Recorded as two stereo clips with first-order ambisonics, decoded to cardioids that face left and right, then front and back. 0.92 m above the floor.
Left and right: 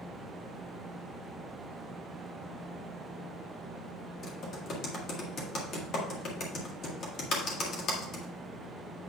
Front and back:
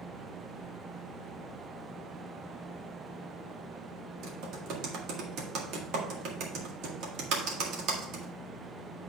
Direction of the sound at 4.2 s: 145° left.